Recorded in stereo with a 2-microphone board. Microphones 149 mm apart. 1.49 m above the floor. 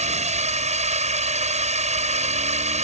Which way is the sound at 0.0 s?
50° right (ahead or behind).